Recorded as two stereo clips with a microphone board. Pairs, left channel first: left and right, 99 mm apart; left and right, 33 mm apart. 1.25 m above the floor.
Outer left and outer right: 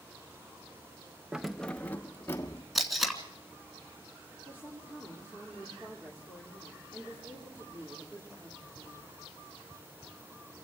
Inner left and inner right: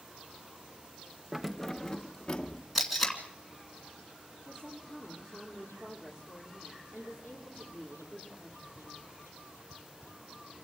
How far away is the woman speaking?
About 4 m.